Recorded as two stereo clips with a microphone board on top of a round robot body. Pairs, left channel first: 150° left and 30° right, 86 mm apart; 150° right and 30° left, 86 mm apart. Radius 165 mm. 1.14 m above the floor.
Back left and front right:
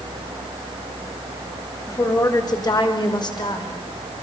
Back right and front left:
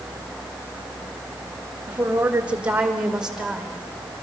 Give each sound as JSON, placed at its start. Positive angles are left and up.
{"t": 1.9, "sound": "a woman speaking", "azimuth_deg": 105, "distance_m": 5.0}